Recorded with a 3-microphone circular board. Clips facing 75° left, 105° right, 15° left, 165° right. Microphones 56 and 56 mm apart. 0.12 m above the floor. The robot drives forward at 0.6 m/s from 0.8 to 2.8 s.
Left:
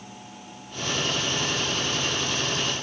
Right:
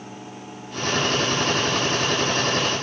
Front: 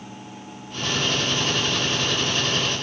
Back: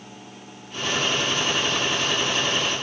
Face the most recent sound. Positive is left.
No sound to turn to.